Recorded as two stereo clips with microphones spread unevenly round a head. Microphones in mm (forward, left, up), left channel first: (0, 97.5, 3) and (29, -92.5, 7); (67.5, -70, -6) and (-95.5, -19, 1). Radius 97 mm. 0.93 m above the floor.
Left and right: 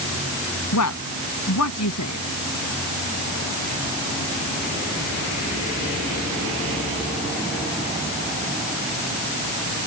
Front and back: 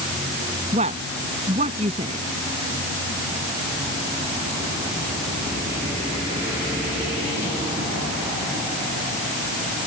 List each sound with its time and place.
0.7 s a woman speaking: 100° left